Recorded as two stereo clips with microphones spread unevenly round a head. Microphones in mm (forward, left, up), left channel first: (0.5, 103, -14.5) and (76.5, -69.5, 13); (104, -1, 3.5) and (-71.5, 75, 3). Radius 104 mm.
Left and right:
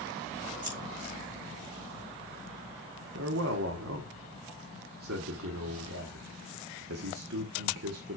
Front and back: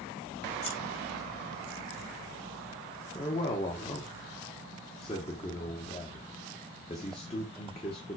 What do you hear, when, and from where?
0.6 s scissors: 20° right, 5.5 m
3.1 s a man speaking: 90° right, 1.2 m